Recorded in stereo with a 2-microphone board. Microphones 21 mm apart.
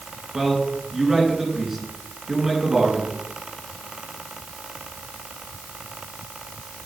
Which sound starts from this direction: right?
A man speaking, at 0.3 s.